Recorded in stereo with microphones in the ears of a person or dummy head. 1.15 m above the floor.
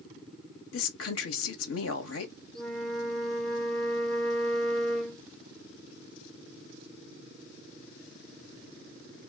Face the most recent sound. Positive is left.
turn(degrees=0)  # may be behind; listen again after turning